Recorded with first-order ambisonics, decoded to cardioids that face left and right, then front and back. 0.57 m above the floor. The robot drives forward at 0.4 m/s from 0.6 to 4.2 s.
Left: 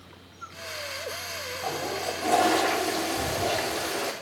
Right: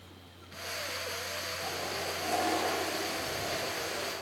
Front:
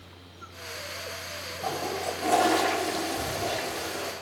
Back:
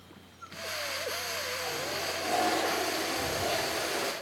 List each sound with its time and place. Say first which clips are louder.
1.6 s a toilet flushing: left 8 dB, front 3 dB; 40° left, 1.3 m; by 4.1 s 105° left, 1.1 m